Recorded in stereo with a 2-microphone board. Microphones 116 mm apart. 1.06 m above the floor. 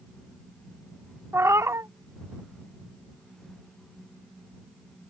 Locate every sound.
1.3 s a cat meowing: 25° right (ahead or behind)